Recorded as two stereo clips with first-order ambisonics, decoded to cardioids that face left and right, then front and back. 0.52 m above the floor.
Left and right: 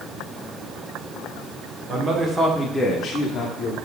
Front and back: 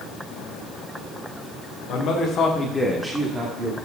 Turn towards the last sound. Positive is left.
turn(degrees=135)